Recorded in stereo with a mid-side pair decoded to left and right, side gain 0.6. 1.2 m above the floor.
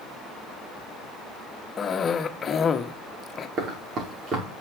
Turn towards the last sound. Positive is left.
turn(degrees=-50)